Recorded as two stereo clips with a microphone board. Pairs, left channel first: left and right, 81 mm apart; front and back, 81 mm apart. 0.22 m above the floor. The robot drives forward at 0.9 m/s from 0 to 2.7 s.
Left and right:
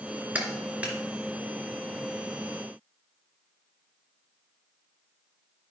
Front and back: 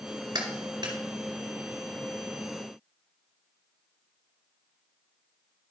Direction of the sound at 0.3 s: 160° right.